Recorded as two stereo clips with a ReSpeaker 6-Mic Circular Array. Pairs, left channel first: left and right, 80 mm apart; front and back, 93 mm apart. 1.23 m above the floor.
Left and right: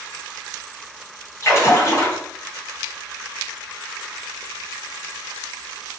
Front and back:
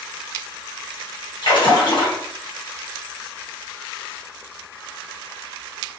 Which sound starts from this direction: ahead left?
A splash, at 1.4 s.